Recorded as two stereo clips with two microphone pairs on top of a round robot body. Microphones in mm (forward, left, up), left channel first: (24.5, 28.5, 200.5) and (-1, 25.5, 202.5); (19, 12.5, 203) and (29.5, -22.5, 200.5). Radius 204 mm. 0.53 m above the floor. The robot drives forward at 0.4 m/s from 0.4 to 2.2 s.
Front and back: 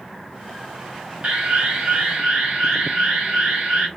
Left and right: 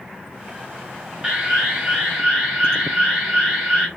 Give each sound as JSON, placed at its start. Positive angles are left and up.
{"t": 1.2, "sound": "an alarm", "azimuth_deg": -145, "distance_m": 1.8}